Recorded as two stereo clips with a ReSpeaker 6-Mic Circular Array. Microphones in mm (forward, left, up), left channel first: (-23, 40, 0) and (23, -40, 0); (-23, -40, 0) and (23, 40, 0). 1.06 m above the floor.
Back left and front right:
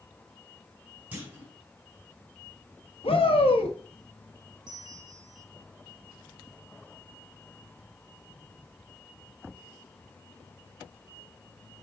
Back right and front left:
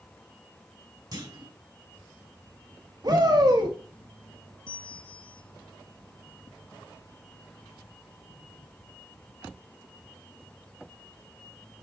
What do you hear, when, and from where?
1.1 s a clunk: 15° left, 3 m
3.0 s a shout: 105° left, 1.7 m
4.7 s a bell: 95° right, 1.4 m